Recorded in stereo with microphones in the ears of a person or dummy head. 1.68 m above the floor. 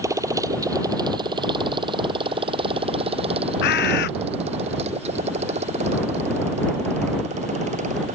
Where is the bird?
50° left (ahead or behind).